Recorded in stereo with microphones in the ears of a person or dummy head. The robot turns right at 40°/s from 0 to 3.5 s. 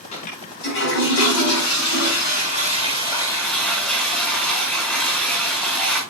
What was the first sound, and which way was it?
A toilet flushing, 40° left.